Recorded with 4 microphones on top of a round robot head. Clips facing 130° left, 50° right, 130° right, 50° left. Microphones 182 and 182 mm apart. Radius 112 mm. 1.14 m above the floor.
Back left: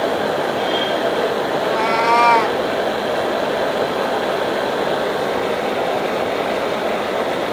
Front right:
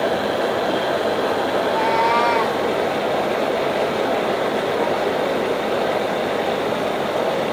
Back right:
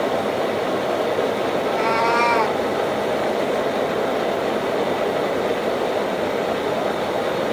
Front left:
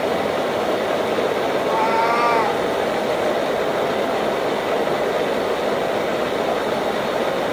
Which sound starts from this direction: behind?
A cat meowing, at 1.6 s.